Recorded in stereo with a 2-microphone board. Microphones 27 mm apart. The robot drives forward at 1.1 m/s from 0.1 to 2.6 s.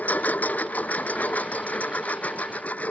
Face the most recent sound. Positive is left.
turn(degrees=65)  # may be behind; listen again after turning